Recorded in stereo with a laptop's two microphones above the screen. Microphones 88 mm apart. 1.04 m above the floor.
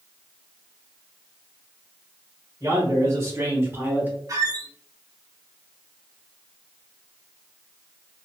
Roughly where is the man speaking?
Right.